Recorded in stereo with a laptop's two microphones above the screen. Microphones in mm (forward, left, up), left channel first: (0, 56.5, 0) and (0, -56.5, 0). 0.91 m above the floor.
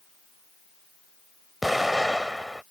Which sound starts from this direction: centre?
An explosion, at 1.6 s.